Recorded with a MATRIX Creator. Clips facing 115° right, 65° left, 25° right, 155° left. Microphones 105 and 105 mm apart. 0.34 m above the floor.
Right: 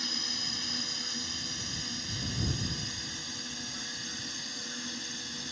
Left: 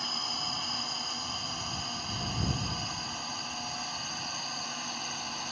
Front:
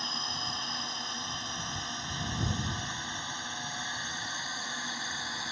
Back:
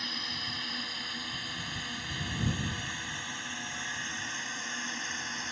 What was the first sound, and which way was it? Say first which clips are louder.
A drone: left 4 dB, front 3 dB; 35° left.